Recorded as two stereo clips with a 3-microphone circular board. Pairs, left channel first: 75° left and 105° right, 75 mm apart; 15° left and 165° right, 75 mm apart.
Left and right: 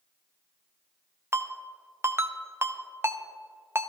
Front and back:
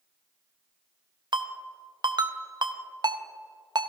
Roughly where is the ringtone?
Behind.